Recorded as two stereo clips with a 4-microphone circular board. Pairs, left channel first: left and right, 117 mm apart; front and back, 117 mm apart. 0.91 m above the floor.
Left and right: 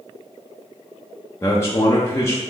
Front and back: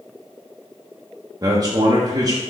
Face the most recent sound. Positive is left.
turn(degrees=140)